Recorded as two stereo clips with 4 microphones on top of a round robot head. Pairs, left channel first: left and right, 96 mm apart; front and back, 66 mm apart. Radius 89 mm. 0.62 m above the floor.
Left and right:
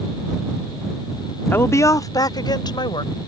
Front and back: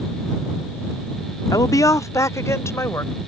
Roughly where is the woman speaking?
Ahead.